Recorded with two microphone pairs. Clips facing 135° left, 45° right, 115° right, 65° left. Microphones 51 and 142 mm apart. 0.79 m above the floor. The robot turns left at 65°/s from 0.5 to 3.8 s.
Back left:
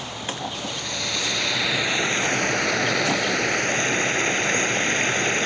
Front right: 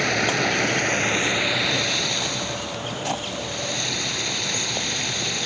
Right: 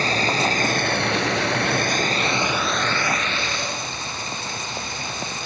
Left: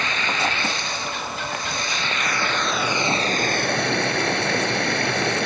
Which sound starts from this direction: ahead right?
Running water, at 0.0 s.